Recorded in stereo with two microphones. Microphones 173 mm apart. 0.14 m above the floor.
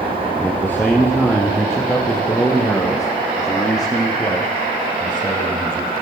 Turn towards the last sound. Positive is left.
turn(degrees=25)  # may be behind; listen again after turning